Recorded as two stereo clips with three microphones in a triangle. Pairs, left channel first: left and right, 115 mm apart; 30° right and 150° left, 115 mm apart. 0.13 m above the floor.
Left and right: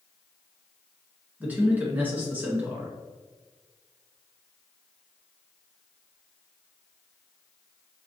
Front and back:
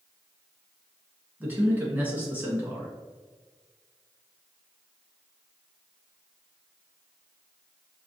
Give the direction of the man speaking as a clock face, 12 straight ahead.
5 o'clock.